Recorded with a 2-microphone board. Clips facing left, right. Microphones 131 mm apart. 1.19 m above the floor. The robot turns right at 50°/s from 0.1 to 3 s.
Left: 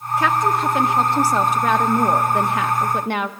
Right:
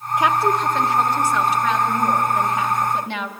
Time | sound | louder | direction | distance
0.2 | a woman speaking | right 1 dB | 20° right | 1.4 m